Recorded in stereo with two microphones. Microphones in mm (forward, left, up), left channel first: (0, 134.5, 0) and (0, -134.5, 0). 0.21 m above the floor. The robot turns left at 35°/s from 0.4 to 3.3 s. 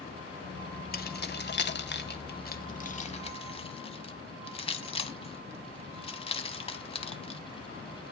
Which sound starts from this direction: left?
Keys jangling, at 0.9 s.